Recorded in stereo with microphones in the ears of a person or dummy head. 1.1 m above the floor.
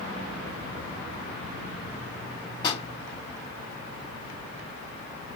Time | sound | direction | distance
2.6 | a pop | 25° left (ahead or behind) | 1.2 m